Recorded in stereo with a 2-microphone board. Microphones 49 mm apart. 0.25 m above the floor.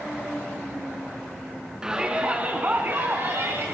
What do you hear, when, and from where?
1.8 s a shout: 15° right (ahead or behind), 3 m; by 3.7 s 60° right (ahead or behind), 2.5 m